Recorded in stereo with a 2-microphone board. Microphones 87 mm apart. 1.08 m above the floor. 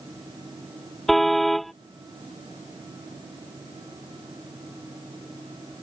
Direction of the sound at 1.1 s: Centre (ahead or behind).